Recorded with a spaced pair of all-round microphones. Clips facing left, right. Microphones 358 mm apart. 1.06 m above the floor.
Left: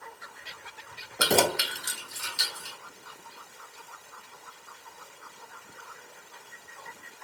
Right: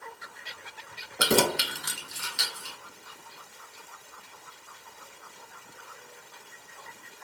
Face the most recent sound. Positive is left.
turn(degrees=-80)